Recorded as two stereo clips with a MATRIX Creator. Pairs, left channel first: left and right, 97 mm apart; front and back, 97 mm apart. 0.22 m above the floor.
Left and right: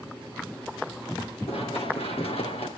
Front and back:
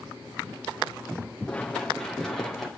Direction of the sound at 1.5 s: 80° left.